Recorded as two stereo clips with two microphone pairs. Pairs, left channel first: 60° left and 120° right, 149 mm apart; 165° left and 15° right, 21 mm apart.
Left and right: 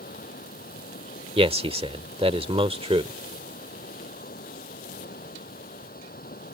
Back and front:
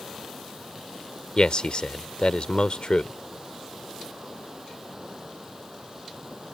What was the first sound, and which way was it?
Running water, 55° left.